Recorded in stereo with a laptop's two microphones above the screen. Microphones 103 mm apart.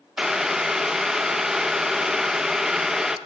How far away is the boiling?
About 0.6 m.